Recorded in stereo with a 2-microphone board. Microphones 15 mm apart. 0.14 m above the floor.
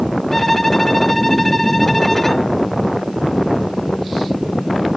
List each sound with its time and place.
0.3 s a violin: 20° left (ahead or behind)